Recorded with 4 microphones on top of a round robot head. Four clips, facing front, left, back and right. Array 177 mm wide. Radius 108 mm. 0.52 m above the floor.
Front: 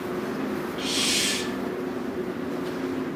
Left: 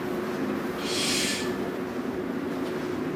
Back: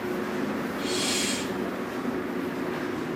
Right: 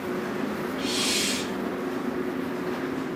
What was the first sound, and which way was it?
A hiss, 5° right.